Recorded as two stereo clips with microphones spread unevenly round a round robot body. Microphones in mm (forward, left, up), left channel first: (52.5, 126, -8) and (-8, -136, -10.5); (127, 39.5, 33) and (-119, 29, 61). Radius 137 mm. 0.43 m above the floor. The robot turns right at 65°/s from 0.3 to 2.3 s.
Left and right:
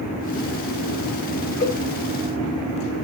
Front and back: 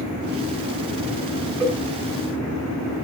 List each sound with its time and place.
1.6 s a cowbell: 155° left, 1.9 m; by 1.8 s 165° left, 1.9 m